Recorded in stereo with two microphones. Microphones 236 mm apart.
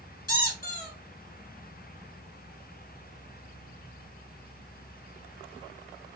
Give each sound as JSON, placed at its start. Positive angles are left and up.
{"t": 0.3, "sound": "a squeak", "side_deg": 40, "distance_m": 1.0}